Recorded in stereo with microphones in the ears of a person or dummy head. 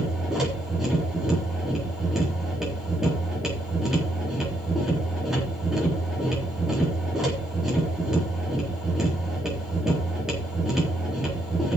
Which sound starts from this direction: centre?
A machine running, at 0.0 s.